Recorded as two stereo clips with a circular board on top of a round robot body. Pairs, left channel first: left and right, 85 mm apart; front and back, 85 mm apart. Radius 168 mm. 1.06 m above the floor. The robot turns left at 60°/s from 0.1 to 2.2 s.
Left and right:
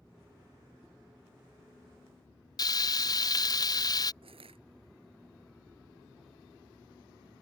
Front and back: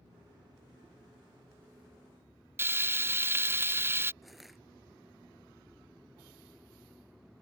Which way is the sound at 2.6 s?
120° left.